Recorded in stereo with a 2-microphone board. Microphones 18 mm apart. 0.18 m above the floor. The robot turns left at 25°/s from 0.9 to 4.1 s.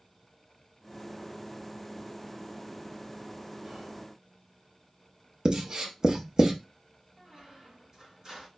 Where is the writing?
45° right (ahead or behind), 0.5 m.